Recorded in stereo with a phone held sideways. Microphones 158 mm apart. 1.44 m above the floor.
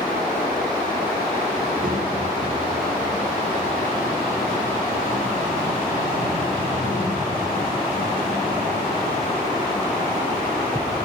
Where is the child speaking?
65° right (ahead or behind), 4.5 m; by 10.9 s 35° right (ahead or behind), 7.5 m.